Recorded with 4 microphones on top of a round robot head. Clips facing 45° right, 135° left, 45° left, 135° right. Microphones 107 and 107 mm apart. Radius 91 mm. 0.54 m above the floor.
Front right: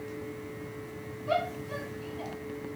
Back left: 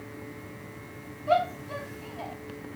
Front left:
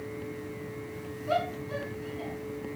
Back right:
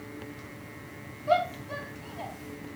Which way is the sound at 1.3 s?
175° right.